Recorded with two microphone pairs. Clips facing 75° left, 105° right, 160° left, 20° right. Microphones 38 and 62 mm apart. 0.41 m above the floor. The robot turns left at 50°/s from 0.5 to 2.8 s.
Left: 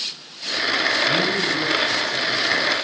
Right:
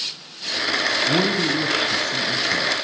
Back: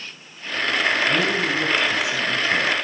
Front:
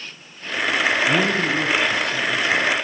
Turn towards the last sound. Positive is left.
turn(degrees=-150)